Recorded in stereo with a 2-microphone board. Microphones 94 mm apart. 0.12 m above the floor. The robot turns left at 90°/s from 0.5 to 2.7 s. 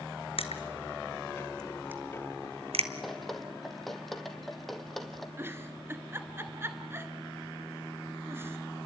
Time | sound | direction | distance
0.4 | crushing | 75° left (ahead or behind) | 1.3 m
3.0 | dripping | centre (ahead or behind) | 2 m
5.4 | a giggle | 25° right (ahead or behind) | 1.6 m